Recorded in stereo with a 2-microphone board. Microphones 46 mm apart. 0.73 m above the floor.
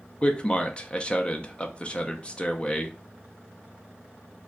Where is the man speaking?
25° left (ahead or behind), 0.5 m.